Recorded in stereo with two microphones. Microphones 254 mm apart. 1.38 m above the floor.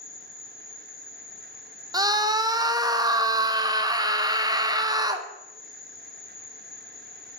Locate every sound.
0.0 s an insect: 55° left (ahead or behind), 0.9 m
1.9 s a scream: 15° right (ahead or behind), 0.6 m